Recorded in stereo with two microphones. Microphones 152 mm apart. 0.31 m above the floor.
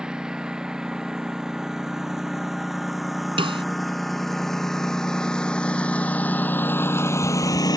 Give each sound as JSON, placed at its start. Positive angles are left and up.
{"t": 0.0, "sound": "a lawn mower", "side_deg": -5}
{"t": 3.4, "sound": "a snare drum", "side_deg": -35}